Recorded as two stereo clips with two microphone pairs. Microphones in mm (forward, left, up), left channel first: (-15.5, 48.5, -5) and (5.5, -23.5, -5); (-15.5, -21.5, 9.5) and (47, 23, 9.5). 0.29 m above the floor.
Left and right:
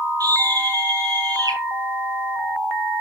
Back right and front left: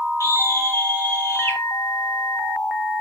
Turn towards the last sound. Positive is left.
turn(degrees=-100)